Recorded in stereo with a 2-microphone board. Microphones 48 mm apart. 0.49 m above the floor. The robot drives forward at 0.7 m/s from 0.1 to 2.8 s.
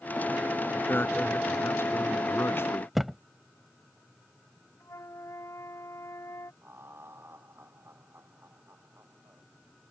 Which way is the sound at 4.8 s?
85° left.